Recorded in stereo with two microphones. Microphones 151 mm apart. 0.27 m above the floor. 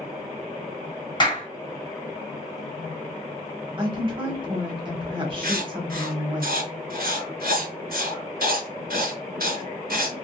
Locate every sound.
1.2 s a clap: 30° left (ahead or behind), 1.4 m
3.8 s a woman speaking: 35° right (ahead or behind), 1.1 m
5.4 s writing: 85° right, 0.9 m